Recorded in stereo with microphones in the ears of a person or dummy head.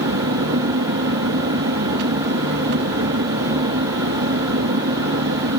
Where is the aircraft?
60° right (ahead or behind).